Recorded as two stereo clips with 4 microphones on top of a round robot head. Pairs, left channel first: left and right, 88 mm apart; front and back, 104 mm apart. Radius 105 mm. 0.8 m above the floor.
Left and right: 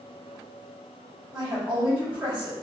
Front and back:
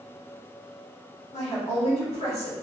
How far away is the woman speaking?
About 2 m.